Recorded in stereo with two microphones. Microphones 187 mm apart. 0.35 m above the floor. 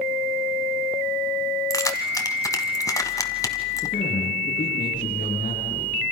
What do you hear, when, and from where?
1.7 s keys jangling: 15° left (ahead or behind), 1.7 m
3.8 s a man speaking: 45° left (ahead or behind), 6.5 m